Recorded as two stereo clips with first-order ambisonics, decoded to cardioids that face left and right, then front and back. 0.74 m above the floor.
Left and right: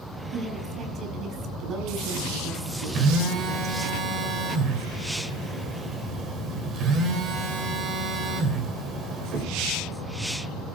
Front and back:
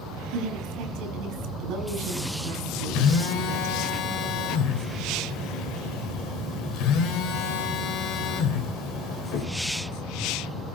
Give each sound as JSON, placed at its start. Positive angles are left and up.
{"t": 0.3, "sound": "a woman speaking", "azimuth_deg": -150, "distance_m": 8.0}
{"t": 3.0, "sound": "a phone buzzing", "azimuth_deg": -35, "distance_m": 2.5}